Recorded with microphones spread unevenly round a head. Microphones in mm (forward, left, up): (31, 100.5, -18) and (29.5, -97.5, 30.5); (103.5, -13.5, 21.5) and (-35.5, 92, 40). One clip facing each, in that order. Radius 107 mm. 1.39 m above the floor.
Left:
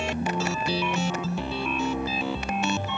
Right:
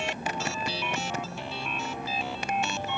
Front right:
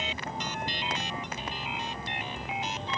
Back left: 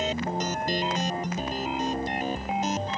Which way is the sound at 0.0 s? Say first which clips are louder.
Left 5 dB, back left 8 dB; 100° left.